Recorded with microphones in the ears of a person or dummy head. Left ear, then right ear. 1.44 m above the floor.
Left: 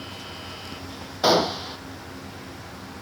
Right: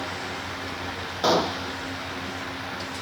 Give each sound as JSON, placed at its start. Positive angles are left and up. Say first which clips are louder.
{"t": 1.2, "sound": "a gunshot", "louder": "left 2 dB", "side_deg": 10}